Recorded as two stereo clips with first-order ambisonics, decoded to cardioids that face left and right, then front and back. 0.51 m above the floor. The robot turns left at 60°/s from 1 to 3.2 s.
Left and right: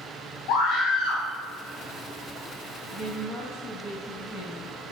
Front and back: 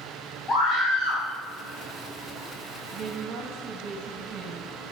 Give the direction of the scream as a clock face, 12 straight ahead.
10 o'clock.